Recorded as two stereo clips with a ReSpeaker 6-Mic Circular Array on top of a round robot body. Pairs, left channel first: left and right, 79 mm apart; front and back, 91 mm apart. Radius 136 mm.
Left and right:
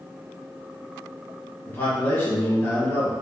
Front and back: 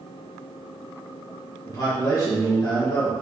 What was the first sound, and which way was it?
A man speaking, 35° left.